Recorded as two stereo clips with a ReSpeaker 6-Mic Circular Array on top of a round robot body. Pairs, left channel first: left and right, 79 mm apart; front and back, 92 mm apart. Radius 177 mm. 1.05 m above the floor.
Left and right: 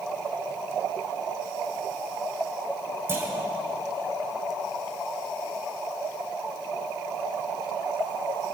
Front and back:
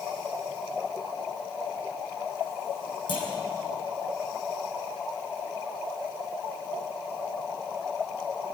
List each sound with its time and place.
3.1 s a clunk: 30° right, 5.5 m